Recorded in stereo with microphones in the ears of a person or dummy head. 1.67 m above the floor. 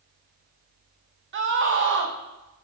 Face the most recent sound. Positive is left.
turn(degrees=-55)  # may be behind; listen again after turning